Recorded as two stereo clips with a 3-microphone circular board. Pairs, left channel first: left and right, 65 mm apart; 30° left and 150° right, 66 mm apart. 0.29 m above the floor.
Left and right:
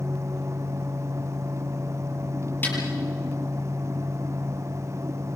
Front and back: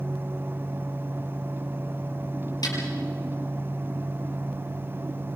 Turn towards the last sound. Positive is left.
turn(degrees=30)